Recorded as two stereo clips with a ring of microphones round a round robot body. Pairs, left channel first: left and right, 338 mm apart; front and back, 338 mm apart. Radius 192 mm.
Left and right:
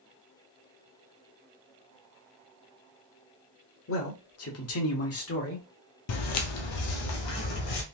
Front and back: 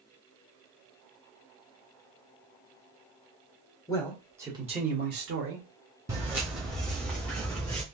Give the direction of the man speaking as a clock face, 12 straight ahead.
10 o'clock.